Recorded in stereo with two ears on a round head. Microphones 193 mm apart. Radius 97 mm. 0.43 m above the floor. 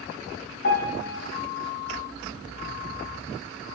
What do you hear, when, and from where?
0.6 s a piano: 55° left (ahead or behind), 3.5 m